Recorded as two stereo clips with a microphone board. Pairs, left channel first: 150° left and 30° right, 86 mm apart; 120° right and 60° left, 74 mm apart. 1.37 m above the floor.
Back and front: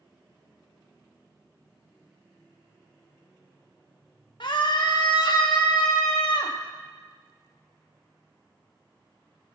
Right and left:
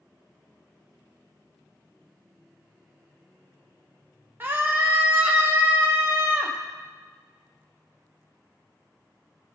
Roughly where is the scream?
Behind left.